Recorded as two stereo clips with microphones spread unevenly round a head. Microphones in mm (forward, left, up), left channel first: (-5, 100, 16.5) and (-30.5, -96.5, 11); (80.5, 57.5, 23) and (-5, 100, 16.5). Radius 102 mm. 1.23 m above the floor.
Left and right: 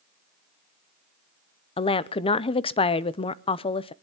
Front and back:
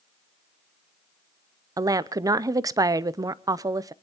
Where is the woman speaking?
135° left, 0.7 m.